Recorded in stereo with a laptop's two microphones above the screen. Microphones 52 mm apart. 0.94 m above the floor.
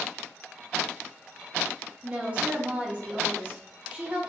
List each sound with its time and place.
2.0 s a woman speaking: 25° right (ahead or behind), 1.4 m